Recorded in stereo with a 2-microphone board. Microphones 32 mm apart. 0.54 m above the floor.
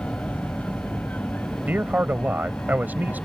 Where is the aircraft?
60° left (ahead or behind).